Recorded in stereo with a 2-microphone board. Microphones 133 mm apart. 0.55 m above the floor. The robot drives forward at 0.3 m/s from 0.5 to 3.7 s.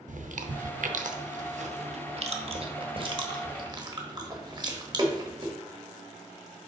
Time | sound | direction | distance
0.1 | chewing | 75° right (ahead or behind) | 0.6 m